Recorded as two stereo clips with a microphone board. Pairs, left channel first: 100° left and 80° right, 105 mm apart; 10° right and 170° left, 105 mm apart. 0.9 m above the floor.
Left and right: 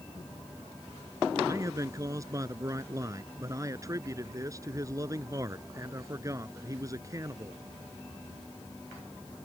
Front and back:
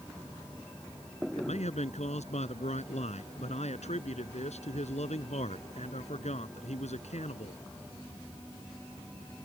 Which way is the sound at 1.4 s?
20° right.